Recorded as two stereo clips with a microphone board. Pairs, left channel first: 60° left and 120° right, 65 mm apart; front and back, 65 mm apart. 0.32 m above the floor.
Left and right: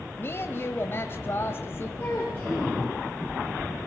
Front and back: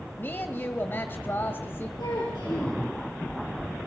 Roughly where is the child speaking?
Ahead.